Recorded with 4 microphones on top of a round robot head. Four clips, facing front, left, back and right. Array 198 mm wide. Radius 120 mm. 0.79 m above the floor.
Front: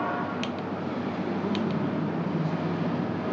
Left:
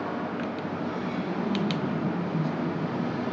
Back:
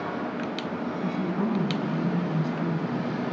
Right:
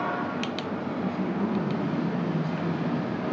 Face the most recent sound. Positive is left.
turn(degrees=175)